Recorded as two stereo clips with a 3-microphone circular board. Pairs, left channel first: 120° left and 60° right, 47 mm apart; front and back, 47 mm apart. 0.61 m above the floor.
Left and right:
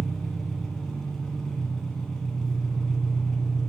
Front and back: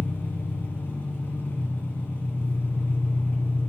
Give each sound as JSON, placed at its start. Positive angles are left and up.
{"t": 0.0, "sound": "an engine running", "azimuth_deg": 40, "distance_m": 1.9}